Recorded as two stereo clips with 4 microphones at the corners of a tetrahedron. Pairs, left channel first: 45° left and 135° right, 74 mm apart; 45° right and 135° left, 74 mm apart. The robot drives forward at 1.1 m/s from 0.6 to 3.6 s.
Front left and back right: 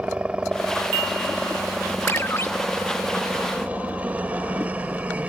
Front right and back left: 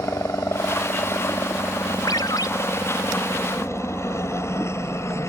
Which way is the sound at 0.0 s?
70° right.